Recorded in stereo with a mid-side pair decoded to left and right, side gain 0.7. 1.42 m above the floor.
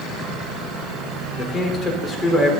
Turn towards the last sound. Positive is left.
turn(degrees=15)